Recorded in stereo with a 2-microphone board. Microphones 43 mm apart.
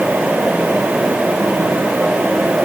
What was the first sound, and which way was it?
Only background noise.